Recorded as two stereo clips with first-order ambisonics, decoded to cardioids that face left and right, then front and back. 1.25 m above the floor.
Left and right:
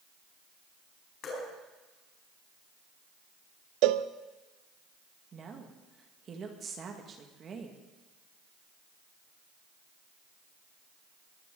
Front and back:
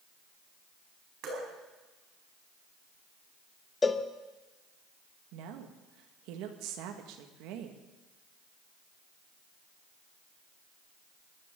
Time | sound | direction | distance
1.2 | dripping | 140° left | 4.5 m
3.8 | a cowbell | 75° right | 0.6 m
5.3 | a woman speaking | 155° right | 1.7 m